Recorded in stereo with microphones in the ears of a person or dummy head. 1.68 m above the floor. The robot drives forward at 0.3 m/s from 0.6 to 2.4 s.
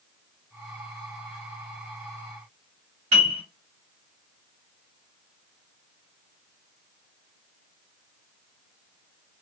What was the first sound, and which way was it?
A piano, 35° right (ahead or behind).